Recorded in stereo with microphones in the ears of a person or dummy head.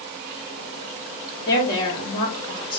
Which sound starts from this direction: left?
A woman speaking, at 1.5 s.